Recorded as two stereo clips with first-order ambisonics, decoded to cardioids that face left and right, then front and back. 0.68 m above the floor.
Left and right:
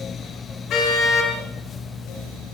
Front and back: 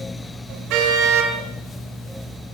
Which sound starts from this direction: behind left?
A car horn, at 0.7 s.